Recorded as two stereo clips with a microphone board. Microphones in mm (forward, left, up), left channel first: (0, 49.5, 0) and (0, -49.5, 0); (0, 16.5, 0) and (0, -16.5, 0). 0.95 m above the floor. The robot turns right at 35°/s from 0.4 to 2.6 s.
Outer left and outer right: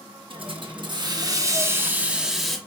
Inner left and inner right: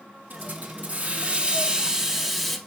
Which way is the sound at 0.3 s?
75° right.